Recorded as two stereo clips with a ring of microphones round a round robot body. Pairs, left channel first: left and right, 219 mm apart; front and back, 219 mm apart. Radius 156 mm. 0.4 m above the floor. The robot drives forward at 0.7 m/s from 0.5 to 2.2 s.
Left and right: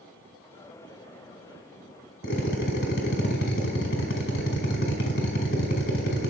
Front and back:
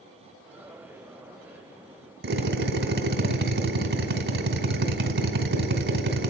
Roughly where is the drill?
Behind left.